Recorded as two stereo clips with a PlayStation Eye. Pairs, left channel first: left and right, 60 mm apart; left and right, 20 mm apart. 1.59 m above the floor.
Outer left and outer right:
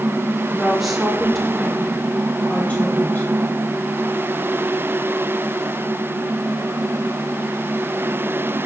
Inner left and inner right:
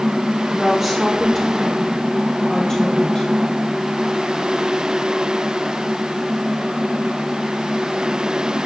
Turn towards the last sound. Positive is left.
turn(degrees=35)  # may be behind; listen again after turning